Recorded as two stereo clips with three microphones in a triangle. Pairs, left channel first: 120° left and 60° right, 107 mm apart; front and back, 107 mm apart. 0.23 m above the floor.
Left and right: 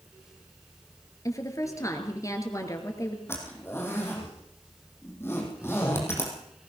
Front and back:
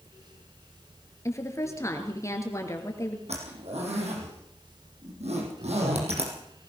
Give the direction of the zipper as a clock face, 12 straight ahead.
6 o'clock.